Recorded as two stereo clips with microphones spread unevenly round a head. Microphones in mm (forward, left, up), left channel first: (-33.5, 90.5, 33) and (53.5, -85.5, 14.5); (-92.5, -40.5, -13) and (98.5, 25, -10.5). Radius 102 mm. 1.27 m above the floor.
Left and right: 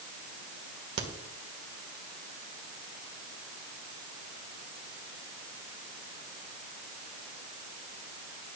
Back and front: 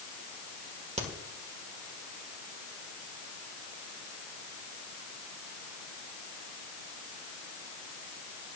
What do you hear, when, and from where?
1.0 s a crack: 40° right, 1.8 m